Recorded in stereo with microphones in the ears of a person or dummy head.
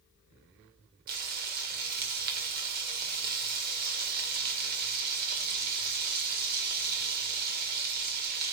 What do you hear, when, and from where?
1.1 s frying: 50° right (ahead or behind), 2 m